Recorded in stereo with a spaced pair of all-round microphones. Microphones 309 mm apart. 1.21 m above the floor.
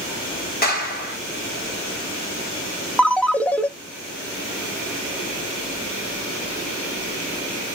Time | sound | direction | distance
0.6 | a clap | 30° left (ahead or behind) | 2.5 m
3.0 | a ringtone | 5° left (ahead or behind) | 0.6 m